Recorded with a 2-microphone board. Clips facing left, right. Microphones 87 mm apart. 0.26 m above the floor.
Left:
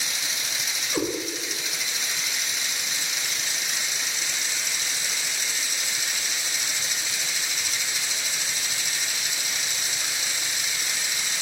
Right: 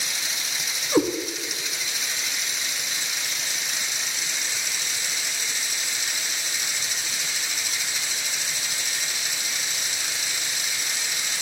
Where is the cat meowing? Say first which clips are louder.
Right 7 dB; 60° right (ahead or behind), 1.3 m.